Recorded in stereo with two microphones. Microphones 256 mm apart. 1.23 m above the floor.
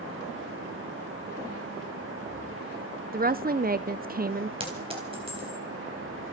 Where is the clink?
20° right (ahead or behind), 4 m.